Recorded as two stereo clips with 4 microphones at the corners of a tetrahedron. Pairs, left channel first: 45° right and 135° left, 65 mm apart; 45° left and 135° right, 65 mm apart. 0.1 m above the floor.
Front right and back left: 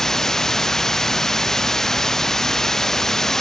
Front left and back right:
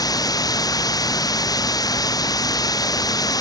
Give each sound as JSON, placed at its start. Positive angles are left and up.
{"t": 0.0, "sound": "running water", "azimuth_deg": 40}